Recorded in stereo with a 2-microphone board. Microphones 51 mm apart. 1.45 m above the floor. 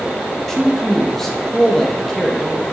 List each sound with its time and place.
0.5 s a man speaking: 10° left (ahead or behind), 1.7 m